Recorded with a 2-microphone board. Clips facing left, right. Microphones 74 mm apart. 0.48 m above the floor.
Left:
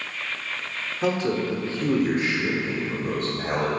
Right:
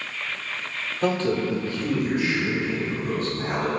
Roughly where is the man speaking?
Centre.